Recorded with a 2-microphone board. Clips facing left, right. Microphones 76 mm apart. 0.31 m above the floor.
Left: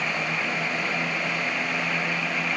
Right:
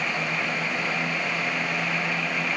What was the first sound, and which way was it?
Only background noise.